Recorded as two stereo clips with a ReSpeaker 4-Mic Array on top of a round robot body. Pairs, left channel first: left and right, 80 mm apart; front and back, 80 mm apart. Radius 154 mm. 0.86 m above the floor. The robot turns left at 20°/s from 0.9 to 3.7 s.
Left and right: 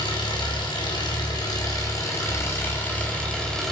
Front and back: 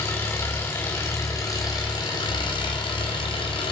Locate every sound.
0.0 s an engine running: 60° left, 5 m; by 3.7 s 5° left, 5 m